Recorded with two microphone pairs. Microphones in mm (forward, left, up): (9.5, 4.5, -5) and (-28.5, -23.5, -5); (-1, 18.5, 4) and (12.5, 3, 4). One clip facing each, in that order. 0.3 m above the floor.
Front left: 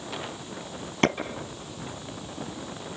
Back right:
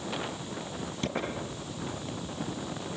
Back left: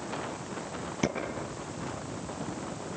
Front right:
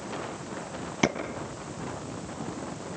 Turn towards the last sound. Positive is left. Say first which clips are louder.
# front left 12 dB, front right 5 dB
turn(degrees=10)